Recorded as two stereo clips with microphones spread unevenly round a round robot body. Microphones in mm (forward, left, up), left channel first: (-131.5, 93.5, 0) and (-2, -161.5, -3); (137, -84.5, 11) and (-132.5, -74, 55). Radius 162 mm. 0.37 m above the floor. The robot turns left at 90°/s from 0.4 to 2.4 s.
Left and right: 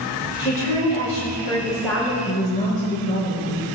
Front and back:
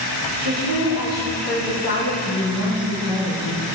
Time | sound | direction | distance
0.4 | a woman speaking | 160° left | 2.5 m
2.2 | a woman speaking | 60° left | 4 m